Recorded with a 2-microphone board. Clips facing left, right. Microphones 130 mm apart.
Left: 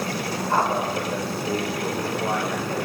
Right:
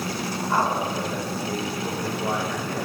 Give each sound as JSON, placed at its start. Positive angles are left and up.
{"t": 0.5, "sound": "a man speaking", "side_deg": 45, "distance_m": 8.5}